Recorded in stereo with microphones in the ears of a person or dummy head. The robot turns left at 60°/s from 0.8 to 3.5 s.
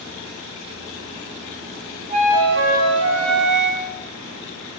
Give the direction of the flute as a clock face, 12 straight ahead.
1 o'clock.